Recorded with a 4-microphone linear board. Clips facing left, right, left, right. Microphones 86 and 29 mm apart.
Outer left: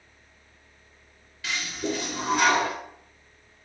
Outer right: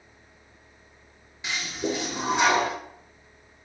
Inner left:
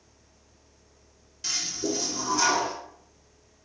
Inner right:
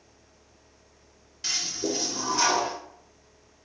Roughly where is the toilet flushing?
Right.